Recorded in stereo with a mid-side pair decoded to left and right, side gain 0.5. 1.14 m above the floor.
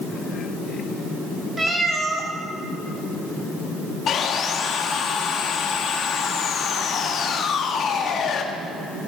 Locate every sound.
1.6 s a cat meowing: 20° right, 2.5 m
4.1 s sawing: 55° left, 1.4 m